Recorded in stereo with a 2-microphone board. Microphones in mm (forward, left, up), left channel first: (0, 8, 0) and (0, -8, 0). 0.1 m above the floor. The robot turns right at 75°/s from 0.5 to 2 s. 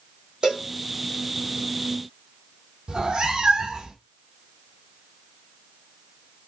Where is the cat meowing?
45° right (ahead or behind), 1.0 m.